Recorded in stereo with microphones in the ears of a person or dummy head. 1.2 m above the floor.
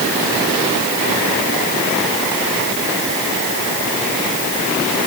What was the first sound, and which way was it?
Only background noise.